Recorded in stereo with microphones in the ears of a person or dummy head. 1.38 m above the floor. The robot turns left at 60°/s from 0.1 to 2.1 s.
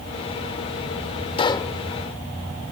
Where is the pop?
30° left (ahead or behind); by 1.8 s 10° left (ahead or behind).